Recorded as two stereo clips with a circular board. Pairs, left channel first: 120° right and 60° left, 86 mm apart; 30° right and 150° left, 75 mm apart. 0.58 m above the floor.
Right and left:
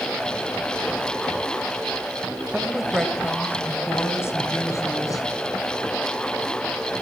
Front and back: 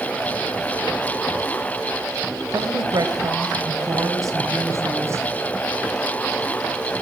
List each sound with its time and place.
2.5 s a woman speaking: 135° left, 2.5 m; by 5.3 s 160° right, 4.5 m